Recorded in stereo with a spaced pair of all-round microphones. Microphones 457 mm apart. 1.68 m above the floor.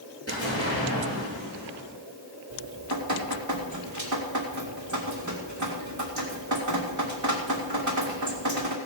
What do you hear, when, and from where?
0.3 s an explosion: 30° left (ahead or behind), 7.5 m
2.5 s dripping: 40° right (ahead or behind), 2 m